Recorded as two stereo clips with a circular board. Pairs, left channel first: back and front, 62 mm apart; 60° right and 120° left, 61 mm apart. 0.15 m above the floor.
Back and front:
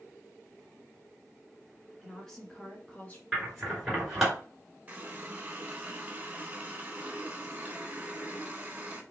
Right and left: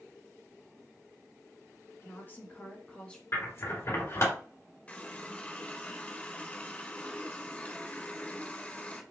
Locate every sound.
2.0 s a woman speaking: 95° right, 1.6 m; by 3.2 s 125° right, 1.5 m
3.3 s scissors: 85° right, 2.5 m
4.9 s a running tap: 25° right, 0.9 m